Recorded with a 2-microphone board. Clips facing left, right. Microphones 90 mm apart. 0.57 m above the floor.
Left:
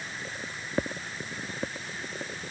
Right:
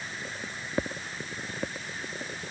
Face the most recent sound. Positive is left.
No sound to turn to.